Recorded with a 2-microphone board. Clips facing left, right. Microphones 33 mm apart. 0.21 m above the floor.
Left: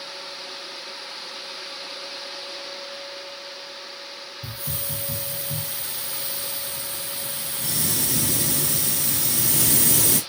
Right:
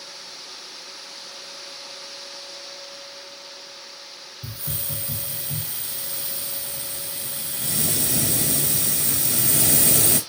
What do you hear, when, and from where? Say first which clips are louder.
4.4 s a hiss: even; 65° right (ahead or behind), 5.5 m